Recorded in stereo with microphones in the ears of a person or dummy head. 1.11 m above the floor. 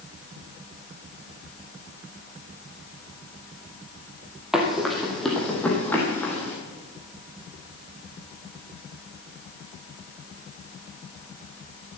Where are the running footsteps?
5° right (ahead or behind), 2 m; by 6.5 s 10° left (ahead or behind), 3.5 m.